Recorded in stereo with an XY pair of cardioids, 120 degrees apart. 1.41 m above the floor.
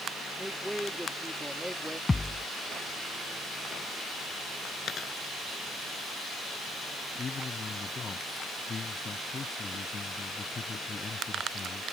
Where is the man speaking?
30° left.